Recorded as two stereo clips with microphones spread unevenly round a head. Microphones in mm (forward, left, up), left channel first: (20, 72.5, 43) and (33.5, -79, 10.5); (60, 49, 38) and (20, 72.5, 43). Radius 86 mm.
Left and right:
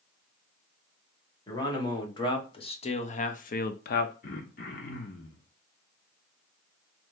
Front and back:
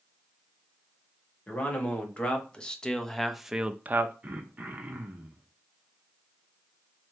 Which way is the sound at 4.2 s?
100° left.